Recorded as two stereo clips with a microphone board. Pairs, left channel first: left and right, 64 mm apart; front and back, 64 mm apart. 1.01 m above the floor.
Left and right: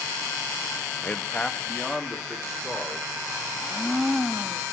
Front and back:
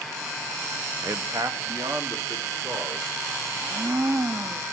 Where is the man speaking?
145° left, 0.7 m; by 3.1 s straight behind, 3.5 m.